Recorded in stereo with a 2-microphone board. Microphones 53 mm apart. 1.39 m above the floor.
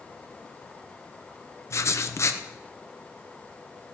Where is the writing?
55° left (ahead or behind), 0.8 m.